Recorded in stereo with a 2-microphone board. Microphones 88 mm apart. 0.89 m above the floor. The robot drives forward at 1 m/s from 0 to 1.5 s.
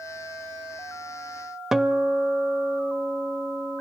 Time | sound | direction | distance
1.7 | a guitar | 5° right (ahead or behind) | 0.6 m